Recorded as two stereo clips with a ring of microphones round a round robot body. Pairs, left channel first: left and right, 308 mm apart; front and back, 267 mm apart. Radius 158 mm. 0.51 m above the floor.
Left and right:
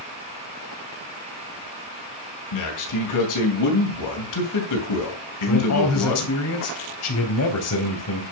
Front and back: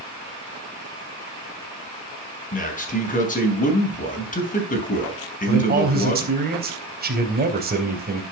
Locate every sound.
2.5 s a man speaking: 60° left, 4.5 m
5.5 s a man speaking: 125° left, 4 m